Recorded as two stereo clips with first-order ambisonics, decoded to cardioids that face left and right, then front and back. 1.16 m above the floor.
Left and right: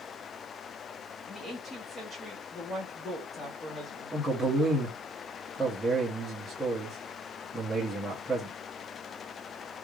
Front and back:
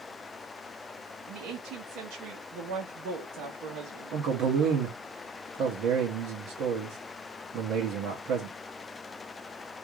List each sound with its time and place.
1.3 s a woman speaking: 155° left, 1.1 m
4.1 s a man speaking: straight behind, 0.9 m